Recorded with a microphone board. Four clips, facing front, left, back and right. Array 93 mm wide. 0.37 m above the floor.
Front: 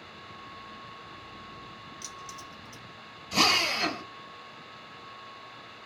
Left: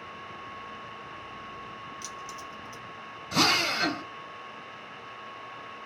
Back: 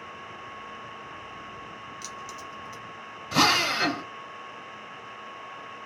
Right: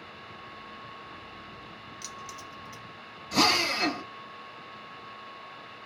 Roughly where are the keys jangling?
Behind right.